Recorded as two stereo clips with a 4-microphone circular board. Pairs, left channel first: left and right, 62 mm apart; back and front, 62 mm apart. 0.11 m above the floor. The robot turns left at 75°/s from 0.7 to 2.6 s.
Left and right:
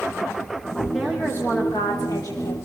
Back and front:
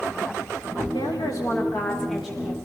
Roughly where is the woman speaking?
Behind.